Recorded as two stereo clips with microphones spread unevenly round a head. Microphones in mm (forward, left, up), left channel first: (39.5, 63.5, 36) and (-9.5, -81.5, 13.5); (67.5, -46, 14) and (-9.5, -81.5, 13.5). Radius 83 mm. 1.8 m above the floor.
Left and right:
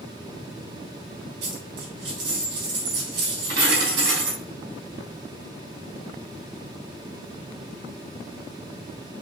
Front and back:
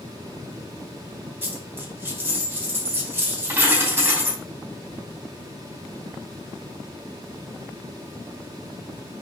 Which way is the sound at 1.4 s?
90° right.